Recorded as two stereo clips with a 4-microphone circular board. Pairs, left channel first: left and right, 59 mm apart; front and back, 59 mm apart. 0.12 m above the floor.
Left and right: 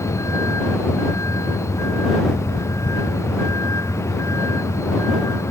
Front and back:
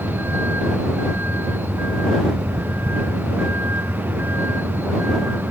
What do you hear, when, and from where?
0.0 s a vehicle: 125° left